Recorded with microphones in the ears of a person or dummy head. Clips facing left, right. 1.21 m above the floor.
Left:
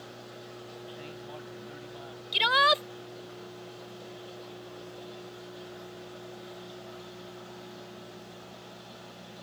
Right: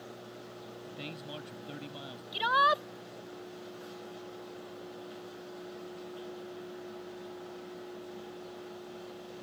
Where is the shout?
35° left (ahead or behind).